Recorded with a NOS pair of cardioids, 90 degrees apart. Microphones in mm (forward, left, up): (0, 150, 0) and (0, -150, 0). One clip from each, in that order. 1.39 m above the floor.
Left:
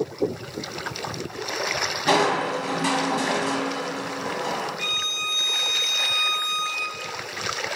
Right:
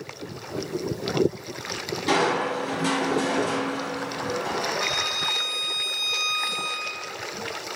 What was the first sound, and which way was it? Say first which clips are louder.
Crushing: left 1 dB; 45° left.